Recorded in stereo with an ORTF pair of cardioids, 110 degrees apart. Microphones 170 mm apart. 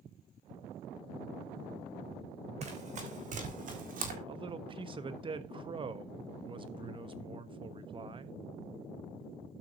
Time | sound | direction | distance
2.6 | running footsteps | 40° right | 3.5 m
4.3 | a man speaking | 30° right | 1.1 m